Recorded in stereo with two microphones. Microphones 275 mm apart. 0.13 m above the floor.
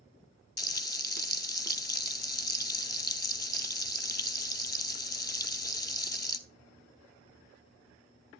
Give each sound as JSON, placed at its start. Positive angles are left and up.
{"t": 0.6, "sound": "frying", "side_deg": 35, "distance_m": 0.6}